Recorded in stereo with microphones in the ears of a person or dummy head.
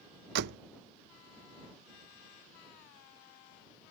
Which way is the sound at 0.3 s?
60° right (ahead or behind).